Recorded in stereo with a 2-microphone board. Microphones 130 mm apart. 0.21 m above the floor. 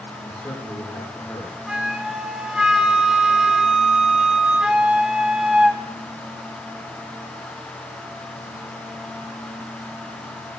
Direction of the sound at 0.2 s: 15° left (ahead or behind).